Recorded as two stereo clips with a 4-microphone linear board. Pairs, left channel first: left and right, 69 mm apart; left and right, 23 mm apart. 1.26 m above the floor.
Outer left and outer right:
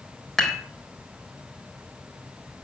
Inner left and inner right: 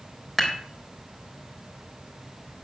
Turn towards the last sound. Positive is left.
turn(degrees=5)  # may be behind; listen again after turning